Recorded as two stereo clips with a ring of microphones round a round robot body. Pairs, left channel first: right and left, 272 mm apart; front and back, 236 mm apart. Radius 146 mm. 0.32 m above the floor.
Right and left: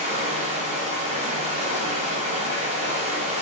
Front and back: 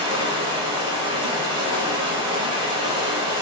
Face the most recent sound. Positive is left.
turn(degrees=135)